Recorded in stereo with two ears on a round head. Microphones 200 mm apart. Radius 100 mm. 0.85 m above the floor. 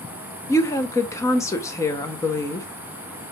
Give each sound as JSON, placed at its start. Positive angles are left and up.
{"t": 0.5, "sound": "a woman speaking", "side_deg": 15, "distance_m": 0.7}